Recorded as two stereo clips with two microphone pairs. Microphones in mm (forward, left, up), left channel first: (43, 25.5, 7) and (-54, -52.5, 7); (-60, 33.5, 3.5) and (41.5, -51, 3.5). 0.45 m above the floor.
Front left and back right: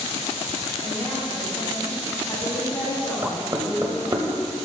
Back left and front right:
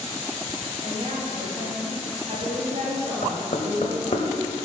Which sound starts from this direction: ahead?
A woman speaking, at 0.8 s.